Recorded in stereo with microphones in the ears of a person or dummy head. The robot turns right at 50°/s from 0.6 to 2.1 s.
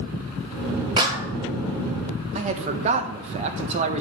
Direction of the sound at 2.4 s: 40° right (ahead or behind).